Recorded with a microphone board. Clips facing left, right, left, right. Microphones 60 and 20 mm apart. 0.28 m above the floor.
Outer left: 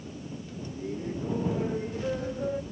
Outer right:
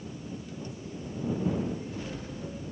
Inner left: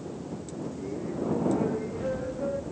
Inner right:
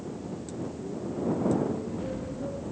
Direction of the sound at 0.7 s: 45° left (ahead or behind).